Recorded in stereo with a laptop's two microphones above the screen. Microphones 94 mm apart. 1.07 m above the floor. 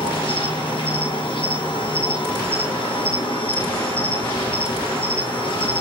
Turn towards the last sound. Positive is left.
turn(degrees=70)  # may be behind; listen again after turning